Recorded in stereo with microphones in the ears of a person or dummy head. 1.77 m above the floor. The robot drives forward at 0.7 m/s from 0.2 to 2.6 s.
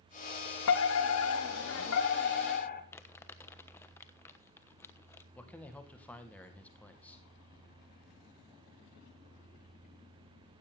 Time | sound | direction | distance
0.7 | a fire alarm | 70° left (ahead or behind) | 1.3 m
2.9 | crumpling | 10° left (ahead or behind) | 1.1 m
5.3 | a man speaking | 5° left (ahead or behind) | 2 m